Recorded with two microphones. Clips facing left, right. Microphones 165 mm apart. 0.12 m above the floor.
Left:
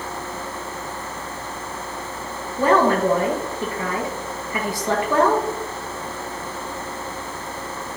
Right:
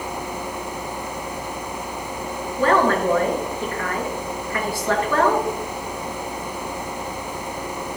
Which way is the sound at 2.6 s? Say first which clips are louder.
Left 1 dB; 20° left (ahead or behind).